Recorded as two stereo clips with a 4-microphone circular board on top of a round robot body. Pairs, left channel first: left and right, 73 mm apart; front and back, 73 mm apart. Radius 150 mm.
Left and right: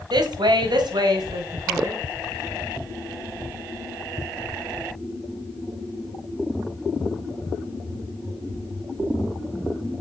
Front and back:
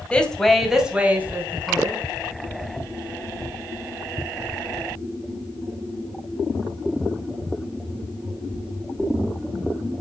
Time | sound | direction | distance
0.1 | a woman speaking | 75° right | 2.5 m